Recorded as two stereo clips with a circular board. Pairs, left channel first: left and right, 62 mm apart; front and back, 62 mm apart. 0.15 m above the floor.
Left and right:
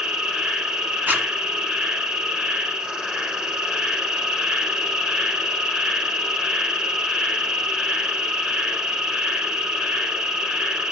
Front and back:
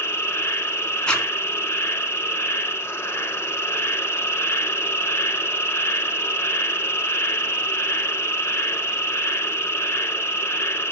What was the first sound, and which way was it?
An insect, 20° right.